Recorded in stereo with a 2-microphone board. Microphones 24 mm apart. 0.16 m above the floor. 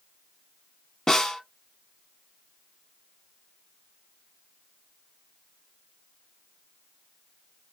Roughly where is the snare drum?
Left.